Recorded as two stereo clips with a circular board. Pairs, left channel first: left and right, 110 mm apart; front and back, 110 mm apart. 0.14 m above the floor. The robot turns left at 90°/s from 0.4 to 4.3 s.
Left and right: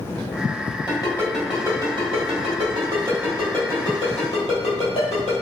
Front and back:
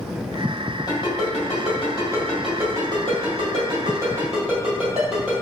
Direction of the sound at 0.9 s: 45° left.